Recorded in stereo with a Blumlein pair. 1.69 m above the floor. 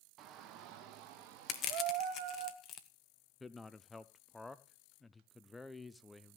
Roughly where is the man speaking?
Ahead.